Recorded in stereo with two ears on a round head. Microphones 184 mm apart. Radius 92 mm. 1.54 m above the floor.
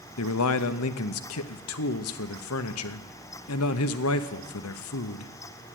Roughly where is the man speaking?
Left.